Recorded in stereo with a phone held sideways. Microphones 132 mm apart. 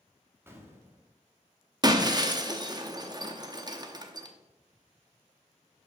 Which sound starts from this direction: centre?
An explosion, at 0.5 s.